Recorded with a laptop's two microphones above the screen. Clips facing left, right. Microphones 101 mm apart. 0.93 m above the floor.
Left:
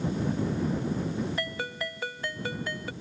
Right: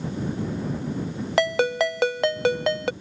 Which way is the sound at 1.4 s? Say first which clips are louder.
Right 13 dB; 80° right.